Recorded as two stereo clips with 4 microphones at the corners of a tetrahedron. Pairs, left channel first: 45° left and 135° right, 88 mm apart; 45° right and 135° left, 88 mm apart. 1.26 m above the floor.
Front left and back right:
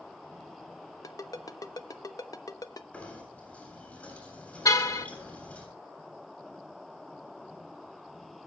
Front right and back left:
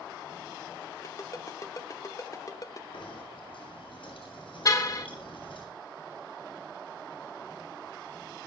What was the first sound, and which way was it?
A ringtone, 5° left.